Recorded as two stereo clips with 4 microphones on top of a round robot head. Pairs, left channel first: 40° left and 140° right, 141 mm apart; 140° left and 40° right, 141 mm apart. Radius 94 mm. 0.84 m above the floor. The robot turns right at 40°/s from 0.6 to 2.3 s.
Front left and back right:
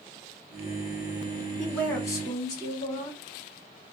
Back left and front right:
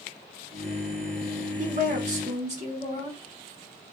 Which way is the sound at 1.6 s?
50° right.